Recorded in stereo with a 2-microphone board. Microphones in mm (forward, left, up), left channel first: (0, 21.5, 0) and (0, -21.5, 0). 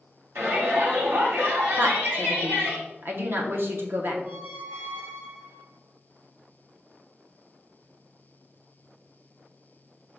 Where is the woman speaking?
55° right (ahead or behind), 0.8 m.